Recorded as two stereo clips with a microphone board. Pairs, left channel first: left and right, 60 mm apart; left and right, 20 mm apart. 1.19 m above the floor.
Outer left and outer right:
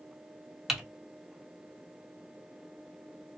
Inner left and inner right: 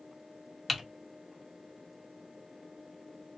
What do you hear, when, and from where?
0.7 s typing on a keyboard: 5° right (ahead or behind), 1.1 m